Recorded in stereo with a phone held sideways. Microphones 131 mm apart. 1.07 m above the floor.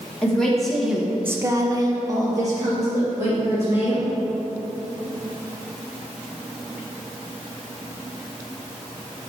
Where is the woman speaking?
5° left (ahead or behind), 1.6 m; by 4.1 s 20° right (ahead or behind), 3.5 m.